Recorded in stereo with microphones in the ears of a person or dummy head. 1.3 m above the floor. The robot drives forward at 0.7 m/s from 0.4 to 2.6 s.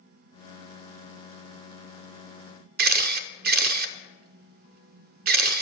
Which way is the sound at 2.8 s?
45° right (ahead or behind).